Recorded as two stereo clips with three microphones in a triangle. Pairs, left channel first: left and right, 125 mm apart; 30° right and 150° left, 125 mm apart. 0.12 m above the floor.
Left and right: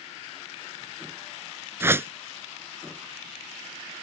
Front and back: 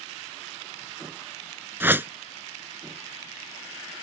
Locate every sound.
1.8 s a whoosh: 145° right